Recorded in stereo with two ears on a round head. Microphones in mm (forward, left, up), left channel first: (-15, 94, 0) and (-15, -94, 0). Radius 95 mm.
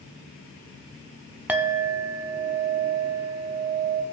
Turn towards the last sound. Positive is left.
turn(degrees=-5)  # may be behind; listen again after turning